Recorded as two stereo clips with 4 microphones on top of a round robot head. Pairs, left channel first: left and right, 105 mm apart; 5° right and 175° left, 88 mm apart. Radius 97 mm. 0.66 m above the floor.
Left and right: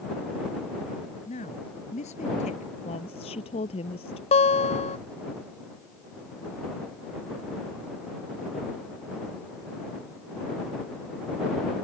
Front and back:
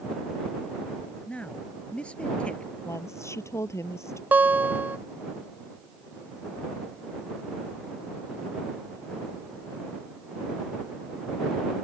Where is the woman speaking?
55° left.